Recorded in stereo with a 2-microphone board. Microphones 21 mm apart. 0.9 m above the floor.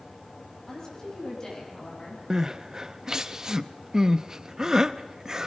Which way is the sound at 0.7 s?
30° left (ahead or behind).